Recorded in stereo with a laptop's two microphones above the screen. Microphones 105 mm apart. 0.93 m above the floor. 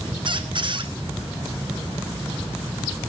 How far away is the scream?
No scream in this recording.